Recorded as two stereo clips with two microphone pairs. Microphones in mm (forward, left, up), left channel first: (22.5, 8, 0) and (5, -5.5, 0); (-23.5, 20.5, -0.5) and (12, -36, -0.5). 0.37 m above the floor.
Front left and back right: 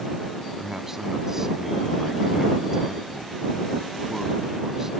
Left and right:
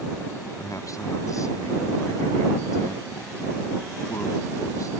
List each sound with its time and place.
0.6 s a man speaking: 145° left